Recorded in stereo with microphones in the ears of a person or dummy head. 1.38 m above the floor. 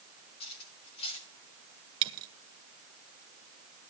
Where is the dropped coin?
25° right (ahead or behind), 1.2 m.